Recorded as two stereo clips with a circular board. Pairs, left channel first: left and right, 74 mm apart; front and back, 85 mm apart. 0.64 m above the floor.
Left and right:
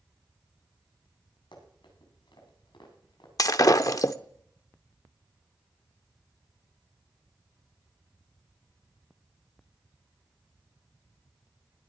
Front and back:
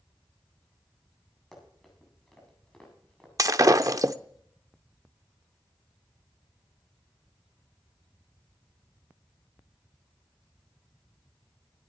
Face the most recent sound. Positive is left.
turn(degrees=130)